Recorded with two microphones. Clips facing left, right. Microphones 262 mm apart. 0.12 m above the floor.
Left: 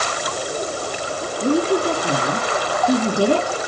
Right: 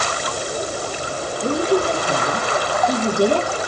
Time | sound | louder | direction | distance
1.4 | a woman speaking | left 1 dB | 30° left (ahead or behind) | 1.8 m